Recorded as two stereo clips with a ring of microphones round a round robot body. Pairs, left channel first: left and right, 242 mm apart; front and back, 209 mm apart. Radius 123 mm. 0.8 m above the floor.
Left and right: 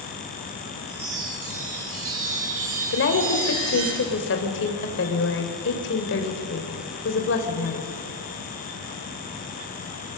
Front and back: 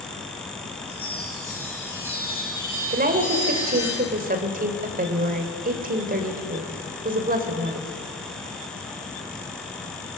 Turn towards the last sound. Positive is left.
turn(degrees=130)